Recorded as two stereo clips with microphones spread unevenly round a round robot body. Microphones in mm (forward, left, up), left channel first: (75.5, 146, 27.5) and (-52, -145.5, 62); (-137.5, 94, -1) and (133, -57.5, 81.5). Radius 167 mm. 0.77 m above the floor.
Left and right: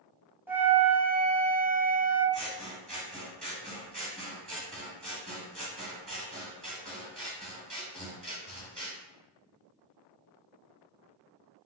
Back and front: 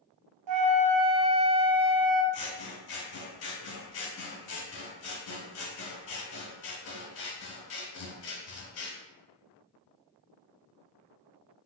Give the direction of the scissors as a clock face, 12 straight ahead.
7 o'clock.